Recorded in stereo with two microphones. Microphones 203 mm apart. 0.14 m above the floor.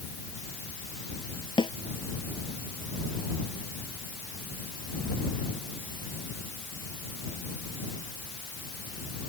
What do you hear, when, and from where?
1.6 s a snare drum: 25° left (ahead or behind)